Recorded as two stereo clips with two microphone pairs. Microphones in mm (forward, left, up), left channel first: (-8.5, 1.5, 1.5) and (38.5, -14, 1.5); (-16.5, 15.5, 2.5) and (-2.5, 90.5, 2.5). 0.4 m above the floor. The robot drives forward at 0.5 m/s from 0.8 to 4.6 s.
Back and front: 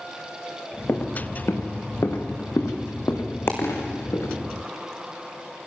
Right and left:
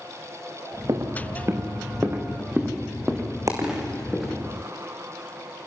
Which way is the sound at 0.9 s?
120° left.